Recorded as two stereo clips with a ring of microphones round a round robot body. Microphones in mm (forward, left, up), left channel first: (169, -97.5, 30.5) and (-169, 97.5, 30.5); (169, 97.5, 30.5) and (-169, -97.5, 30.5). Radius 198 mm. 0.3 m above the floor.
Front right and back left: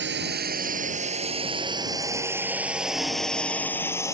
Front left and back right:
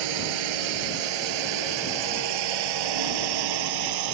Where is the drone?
145° right; by 4.2 s 115° right.